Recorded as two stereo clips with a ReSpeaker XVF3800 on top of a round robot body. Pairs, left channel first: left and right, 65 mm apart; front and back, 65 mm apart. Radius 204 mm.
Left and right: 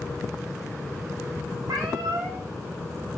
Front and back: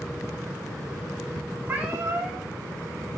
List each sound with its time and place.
1.7 s a cat meowing: 115° right, 1.1 m